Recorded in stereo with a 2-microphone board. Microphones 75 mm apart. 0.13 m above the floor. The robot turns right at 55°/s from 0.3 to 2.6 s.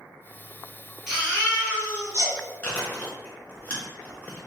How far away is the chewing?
About 1.1 m.